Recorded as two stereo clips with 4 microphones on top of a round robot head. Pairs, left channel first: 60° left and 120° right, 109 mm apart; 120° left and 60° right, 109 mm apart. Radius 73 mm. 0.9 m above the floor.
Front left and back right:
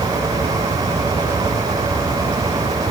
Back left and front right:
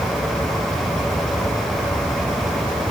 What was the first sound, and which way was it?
Only background noise.